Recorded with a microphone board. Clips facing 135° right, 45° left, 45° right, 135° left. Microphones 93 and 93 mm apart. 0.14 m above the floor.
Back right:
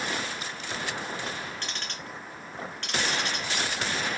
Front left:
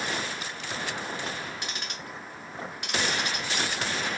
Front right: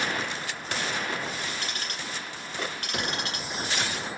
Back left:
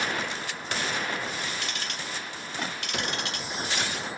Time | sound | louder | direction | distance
1.6 | ticking | even, even | 30° right | 1.4 m